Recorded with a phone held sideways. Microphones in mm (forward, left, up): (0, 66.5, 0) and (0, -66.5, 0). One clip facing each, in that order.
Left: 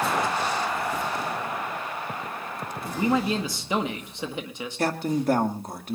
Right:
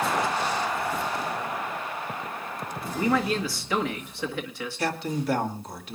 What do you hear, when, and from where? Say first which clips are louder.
2.9 s a man speaking: left 1 dB; 20° left (ahead or behind), 1.6 m
4.8 s a man speaking: left 4 dB; 45° left (ahead or behind), 2 m